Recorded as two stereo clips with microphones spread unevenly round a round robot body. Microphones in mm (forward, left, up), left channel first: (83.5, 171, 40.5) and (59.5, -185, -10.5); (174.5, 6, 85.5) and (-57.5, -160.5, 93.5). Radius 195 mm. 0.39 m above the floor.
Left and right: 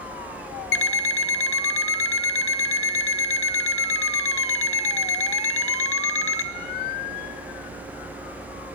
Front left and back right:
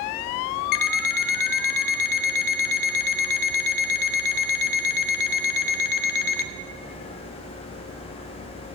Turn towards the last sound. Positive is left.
turn(degrees=25)